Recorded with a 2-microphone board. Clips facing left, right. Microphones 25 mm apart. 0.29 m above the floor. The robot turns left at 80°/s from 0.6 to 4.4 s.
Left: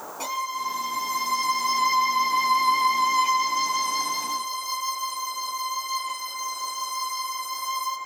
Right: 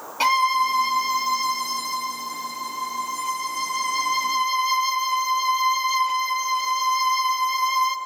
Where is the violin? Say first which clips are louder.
Right 10 dB; 115° right, 2 m; by 8.0 s 60° right, 2 m.